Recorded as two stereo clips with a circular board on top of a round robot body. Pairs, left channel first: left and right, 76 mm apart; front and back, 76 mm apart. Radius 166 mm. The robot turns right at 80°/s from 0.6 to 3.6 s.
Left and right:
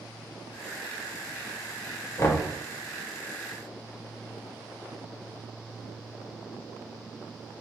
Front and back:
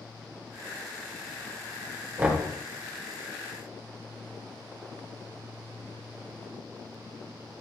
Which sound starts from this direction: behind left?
Knocking, at 2.2 s.